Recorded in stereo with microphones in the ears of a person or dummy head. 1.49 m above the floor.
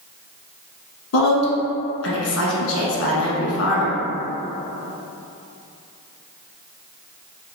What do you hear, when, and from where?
1.1 s a woman speaking: 80° left, 1.3 m